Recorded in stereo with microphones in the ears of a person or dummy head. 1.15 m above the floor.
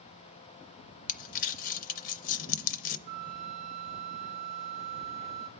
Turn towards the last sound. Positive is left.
turn(degrees=-35)  # may be behind; listen again after turning